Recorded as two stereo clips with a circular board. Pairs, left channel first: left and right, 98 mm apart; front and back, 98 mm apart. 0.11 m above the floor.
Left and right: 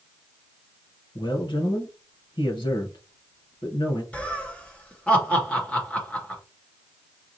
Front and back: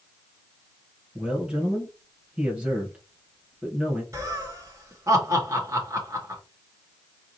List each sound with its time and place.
1.1 s a man speaking: 105° left, 2.5 m
4.1 s laughter: 155° left, 2.0 m